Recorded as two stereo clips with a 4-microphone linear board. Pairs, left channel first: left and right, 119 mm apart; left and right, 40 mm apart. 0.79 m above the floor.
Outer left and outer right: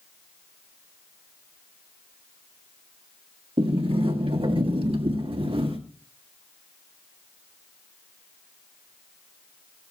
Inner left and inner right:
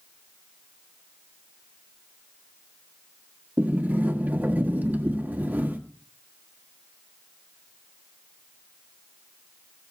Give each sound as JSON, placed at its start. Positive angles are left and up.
{"t": 3.6, "sound": "a sliding door", "side_deg": -50, "distance_m": 1.6}